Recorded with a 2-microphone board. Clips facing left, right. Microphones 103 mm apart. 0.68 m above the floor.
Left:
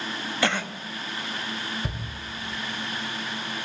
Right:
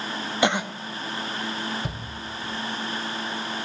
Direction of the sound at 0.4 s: 20° right (ahead or behind).